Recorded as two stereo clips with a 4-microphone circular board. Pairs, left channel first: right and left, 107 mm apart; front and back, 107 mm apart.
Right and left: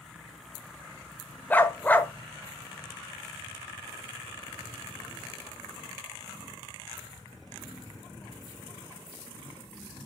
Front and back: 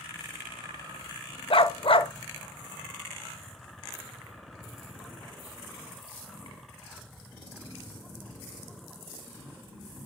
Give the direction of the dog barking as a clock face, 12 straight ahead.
1 o'clock.